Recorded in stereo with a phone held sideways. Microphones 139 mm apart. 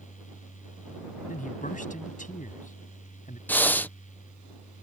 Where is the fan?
65° left (ahead or behind).